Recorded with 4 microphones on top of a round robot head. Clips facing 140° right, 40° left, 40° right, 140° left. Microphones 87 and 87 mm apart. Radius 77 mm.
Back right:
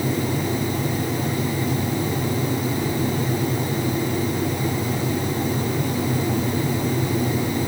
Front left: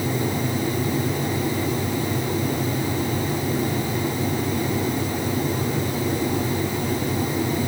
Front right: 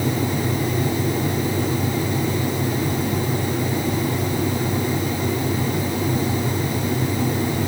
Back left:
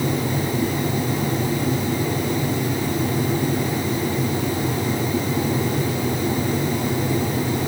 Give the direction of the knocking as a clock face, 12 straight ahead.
No knocking in this recording.